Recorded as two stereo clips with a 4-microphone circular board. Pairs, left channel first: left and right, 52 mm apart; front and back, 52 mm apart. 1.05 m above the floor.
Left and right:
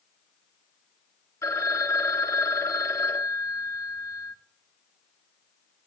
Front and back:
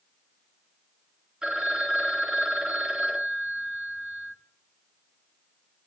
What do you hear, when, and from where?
1.4 s a phone ringing: 105° left, 0.9 m